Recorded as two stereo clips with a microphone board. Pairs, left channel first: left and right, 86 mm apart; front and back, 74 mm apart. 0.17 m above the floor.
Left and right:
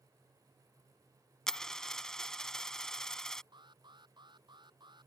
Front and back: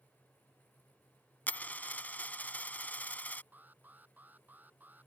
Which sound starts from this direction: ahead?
A dropped coin, at 1.5 s.